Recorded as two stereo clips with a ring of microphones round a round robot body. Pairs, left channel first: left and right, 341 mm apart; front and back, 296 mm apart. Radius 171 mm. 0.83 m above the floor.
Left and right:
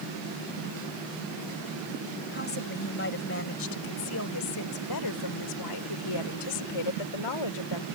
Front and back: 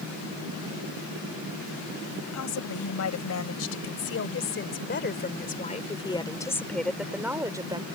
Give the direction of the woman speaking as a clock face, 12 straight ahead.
11 o'clock.